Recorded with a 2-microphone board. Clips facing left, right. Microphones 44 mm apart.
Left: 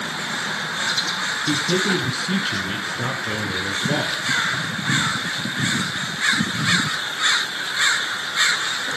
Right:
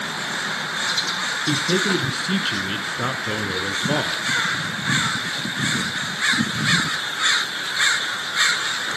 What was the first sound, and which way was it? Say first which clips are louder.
A man speaking: even; 30° right (ahead or behind).